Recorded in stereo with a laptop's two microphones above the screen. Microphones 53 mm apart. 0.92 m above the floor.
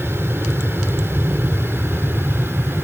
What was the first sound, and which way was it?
An aircraft, 50° right (ahead or behind).